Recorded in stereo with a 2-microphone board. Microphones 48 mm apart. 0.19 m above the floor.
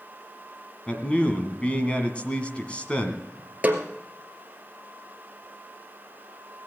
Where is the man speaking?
25° left (ahead or behind), 1.9 m.